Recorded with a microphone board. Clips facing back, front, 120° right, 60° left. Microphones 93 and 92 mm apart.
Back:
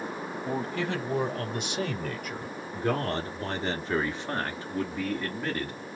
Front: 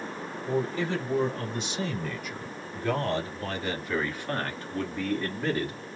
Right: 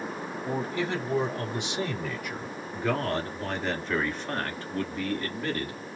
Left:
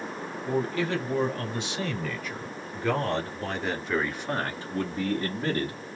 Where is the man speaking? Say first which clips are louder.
Front 3 dB, left 3 dB; 175° left, 3 m; by 5.8 s 70° left, 1.5 m.